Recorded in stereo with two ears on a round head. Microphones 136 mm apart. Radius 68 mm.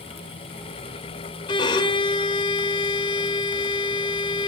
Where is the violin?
30° left (ahead or behind), 1.8 m.